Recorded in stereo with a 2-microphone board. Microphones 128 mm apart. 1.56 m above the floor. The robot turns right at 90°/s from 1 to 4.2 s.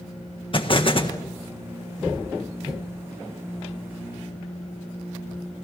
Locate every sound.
0.5 s an explosion: 40° left (ahead or behind), 1.5 m; by 1.2 s 25° left (ahead or behind), 1.5 m